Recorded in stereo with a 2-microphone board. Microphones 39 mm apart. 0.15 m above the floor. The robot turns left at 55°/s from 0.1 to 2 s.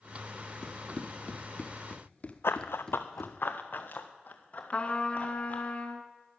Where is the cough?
I don't hear a cough.